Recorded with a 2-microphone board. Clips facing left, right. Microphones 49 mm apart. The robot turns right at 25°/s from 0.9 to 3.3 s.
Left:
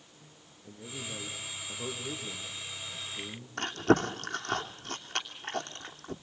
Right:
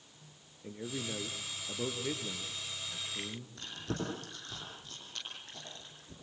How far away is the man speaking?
About 4.5 m.